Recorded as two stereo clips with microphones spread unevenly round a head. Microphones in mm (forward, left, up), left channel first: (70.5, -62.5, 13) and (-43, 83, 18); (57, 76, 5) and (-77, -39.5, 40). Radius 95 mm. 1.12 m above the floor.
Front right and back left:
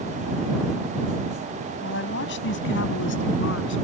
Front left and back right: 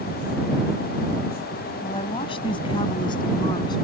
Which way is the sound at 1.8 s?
25° right.